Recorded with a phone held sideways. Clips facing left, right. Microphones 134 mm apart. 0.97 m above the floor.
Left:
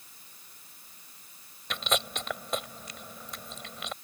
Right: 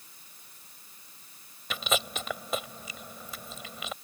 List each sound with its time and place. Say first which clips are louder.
1.7 s chewing: even; 5° right (ahead or behind)